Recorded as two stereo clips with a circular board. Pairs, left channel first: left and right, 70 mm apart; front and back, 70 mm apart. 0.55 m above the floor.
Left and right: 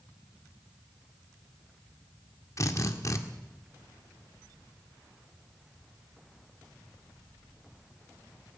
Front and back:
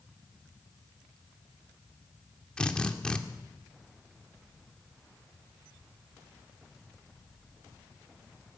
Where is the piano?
I don't hear a piano.